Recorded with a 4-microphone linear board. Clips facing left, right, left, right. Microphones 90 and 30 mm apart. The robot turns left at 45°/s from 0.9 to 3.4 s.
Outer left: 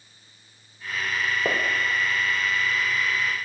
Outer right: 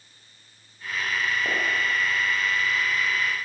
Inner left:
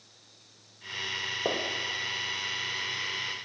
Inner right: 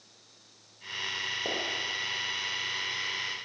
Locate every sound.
1.4 s a gunshot: 35° left (ahead or behind), 3.5 m; by 1.7 s 25° left (ahead or behind), 3.5 m